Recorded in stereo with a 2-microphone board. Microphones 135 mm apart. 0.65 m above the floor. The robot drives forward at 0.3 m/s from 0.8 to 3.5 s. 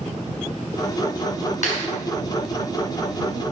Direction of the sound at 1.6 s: 70° left (ahead or behind).